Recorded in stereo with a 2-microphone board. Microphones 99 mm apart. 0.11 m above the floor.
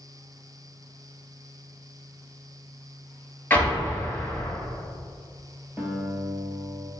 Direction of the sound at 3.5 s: 20° left (ahead or behind).